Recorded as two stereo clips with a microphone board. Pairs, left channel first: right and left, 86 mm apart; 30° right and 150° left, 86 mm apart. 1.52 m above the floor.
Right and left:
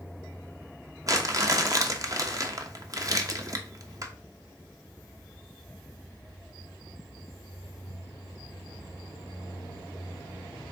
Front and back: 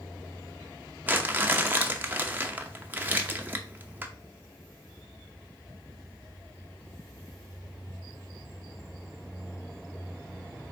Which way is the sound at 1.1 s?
95° left.